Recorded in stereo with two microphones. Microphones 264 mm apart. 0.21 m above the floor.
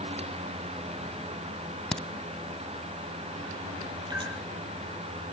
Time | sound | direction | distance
1.9 | a crack | 5° left (ahead or behind) | 0.6 m
4.1 | dripping | 15° right (ahead or behind) | 5 m